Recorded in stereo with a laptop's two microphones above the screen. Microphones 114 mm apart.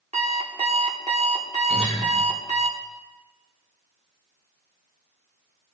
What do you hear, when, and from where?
0.1 s an alarm clock: 70° right (ahead or behind), 1.3 m
1.7 s a guitar: 5° right (ahead or behind), 3 m